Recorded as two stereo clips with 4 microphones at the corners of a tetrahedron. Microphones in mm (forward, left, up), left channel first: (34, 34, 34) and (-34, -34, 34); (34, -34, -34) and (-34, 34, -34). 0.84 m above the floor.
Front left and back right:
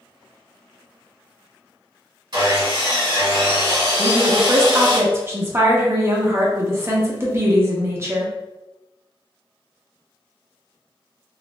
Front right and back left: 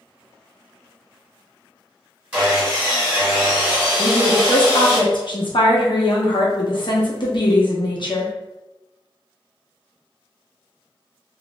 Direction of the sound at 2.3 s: 150° right.